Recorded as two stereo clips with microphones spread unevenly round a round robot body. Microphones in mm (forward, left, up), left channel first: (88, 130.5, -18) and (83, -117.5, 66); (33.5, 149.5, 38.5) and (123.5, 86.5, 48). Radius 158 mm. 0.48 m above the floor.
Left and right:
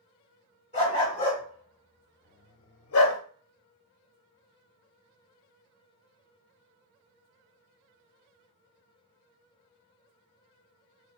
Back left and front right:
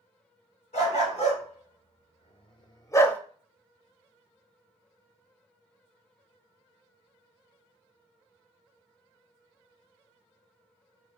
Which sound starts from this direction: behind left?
A dog barking, at 0.7 s.